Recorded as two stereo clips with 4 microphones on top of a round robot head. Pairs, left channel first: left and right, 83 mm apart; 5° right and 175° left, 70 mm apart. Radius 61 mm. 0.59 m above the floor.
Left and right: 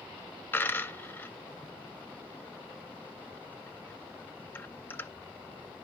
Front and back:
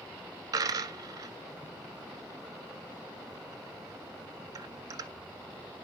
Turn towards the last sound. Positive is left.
turn(degrees=155)